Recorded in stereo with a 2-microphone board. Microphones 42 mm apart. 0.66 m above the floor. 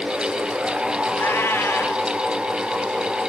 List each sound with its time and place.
1.2 s a cat meowing: 75° left (ahead or behind), 1.4 m